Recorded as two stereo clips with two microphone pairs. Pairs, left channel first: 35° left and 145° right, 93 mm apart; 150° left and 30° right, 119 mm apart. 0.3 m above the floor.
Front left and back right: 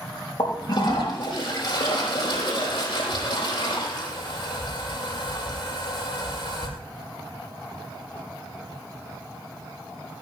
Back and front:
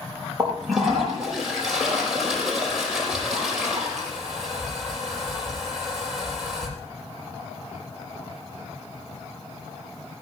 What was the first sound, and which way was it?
A toilet flushing, 60° left.